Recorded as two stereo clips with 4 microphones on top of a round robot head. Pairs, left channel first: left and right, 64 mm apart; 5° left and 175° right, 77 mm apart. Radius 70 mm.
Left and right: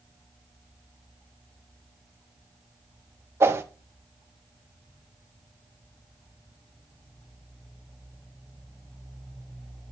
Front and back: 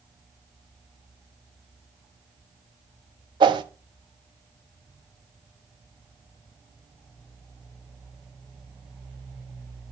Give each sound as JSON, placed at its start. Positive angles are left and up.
{"t": 3.4, "sound": "a whoosh", "azimuth_deg": -145, "distance_m": 0.5}